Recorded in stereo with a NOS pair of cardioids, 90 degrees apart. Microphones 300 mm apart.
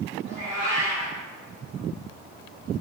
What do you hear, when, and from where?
0.2 s a cat meowing: 55° right, 1.6 m